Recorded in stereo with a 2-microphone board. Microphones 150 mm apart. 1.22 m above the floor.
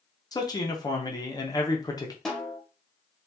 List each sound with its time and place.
0.3 s a man speaking: 25° left (ahead or behind), 0.8 m
2.2 s a snare drum: centre (ahead or behind), 1.1 m